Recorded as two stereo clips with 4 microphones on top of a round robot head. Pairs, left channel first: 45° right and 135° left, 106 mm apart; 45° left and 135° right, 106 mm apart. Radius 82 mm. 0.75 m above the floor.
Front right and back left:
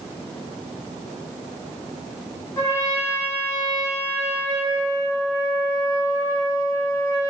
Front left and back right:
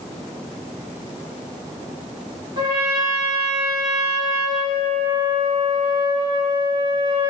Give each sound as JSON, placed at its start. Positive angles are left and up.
{"t": 2.6, "sound": "a trumpet", "azimuth_deg": -100, "distance_m": 0.9}